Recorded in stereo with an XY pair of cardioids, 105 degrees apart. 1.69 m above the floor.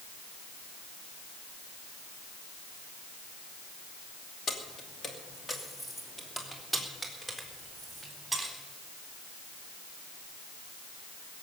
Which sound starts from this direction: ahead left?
Keys jangling, at 4.5 s.